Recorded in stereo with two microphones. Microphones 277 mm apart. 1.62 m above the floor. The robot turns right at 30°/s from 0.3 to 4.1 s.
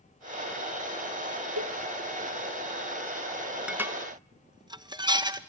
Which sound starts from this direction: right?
A cowbell, at 1.6 s.